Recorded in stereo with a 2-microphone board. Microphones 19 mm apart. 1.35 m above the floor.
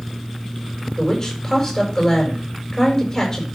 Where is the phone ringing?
I don't hear a phone ringing.